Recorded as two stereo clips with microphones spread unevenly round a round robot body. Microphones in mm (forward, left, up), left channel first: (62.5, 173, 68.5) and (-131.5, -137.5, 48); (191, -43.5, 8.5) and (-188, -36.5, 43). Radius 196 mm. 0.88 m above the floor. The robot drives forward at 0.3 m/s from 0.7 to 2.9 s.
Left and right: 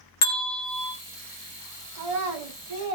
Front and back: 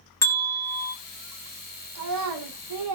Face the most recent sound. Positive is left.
turn(degrees=-145)